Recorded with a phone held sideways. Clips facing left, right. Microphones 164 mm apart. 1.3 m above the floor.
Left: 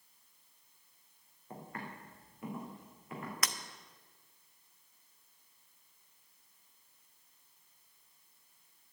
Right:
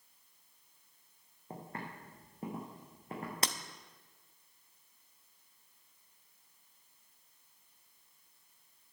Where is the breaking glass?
30° right (ahead or behind), 0.7 m.